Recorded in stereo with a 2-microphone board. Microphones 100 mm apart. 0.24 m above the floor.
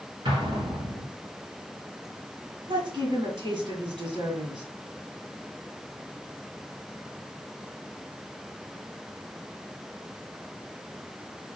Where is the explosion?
55° right (ahead or behind), 2 m.